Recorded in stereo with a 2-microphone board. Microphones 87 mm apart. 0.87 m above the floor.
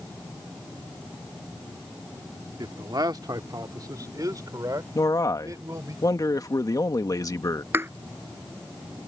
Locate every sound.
2.6 s a man speaking: 55° right (ahead or behind); by 6.0 s 40° right (ahead or behind)
5.0 s a man speaking: 45° left (ahead or behind)
7.7 s a thud: 30° right (ahead or behind)